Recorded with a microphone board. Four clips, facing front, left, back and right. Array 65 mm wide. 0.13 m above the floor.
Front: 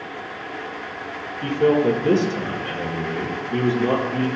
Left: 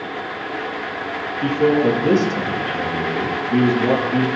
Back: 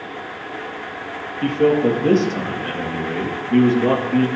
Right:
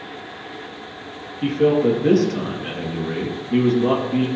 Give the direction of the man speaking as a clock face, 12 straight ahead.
5 o'clock.